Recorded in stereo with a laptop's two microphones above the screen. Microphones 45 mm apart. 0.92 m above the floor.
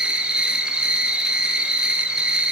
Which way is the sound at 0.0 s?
20° right (ahead or behind).